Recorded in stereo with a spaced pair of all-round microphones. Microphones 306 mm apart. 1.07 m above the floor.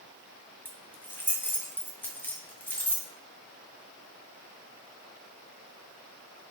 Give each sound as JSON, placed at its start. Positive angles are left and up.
{"t": 0.7, "sound": "keys jangling", "side_deg": 5, "distance_m": 0.9}